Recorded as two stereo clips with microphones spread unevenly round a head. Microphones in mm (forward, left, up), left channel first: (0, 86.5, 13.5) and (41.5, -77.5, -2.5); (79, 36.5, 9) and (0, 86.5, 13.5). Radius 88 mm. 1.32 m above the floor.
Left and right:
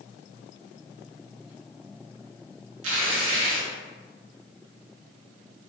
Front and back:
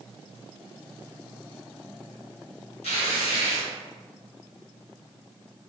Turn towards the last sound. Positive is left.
turn(degrees=-75)